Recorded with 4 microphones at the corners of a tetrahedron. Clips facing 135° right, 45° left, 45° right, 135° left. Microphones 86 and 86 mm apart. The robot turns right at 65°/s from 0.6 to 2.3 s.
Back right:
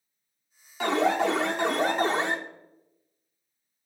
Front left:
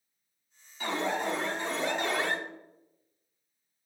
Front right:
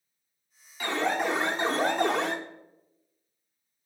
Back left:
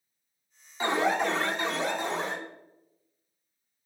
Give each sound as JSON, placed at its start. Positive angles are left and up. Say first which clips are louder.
{"t": 0.8, "sound": "an alarm", "louder": "back right 7 dB, back left 2 dB", "azimuth_deg": -160, "distance_m": 0.9}